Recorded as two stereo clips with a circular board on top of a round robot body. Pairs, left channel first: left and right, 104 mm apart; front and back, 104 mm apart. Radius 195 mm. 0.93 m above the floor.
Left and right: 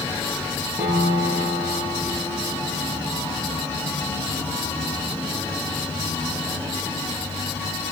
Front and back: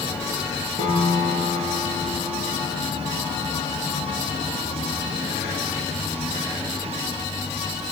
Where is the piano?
160° right, 5.5 m.